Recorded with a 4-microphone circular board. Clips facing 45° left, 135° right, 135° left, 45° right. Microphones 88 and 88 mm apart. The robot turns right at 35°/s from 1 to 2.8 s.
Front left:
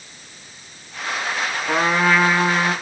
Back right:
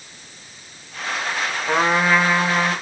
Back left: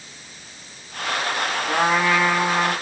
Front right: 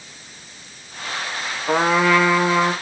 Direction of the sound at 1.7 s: 60° right.